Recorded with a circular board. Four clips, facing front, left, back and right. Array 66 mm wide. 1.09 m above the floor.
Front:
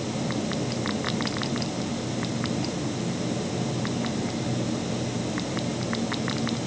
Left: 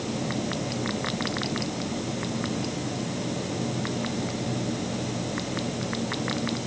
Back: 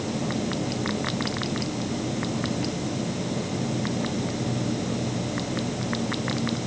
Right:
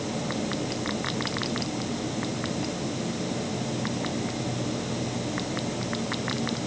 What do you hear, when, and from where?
Only background noise.